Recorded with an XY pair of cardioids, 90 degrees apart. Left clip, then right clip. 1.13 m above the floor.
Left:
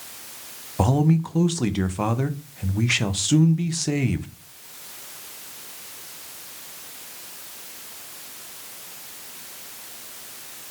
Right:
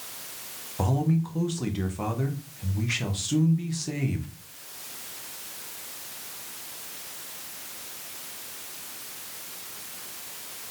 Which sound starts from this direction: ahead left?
A man speaking, at 0.8 s.